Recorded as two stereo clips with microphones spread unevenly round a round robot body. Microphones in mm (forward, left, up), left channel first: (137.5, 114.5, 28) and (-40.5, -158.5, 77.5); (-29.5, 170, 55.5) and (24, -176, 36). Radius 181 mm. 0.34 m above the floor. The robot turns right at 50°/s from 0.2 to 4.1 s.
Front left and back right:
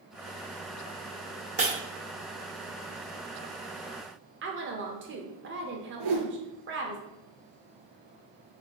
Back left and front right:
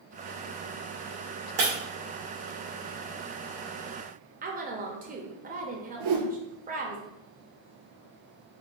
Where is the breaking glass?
65° right, 2.0 m; by 1.7 s 60° right, 2.0 m.